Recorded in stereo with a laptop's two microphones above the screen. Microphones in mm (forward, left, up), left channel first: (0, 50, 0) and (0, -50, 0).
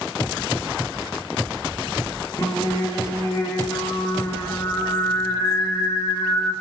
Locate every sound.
2.4 s singing: 35° left (ahead or behind), 3 m